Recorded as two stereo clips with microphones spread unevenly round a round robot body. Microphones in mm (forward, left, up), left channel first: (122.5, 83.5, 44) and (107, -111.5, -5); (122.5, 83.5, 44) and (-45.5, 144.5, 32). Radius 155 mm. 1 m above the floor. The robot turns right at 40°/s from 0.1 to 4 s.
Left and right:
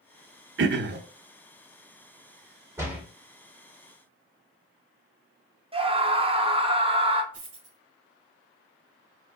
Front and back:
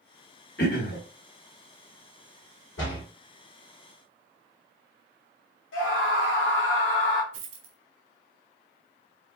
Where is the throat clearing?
65° right, 0.9 m; by 1.0 s 50° right, 0.9 m.